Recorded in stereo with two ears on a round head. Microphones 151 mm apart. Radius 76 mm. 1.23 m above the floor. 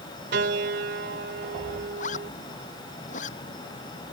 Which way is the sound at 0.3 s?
65° right (ahead or behind).